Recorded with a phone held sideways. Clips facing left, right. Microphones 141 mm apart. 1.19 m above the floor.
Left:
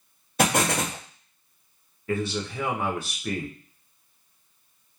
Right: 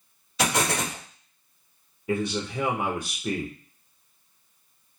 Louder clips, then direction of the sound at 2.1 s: Right 1 dB; 15° right (ahead or behind).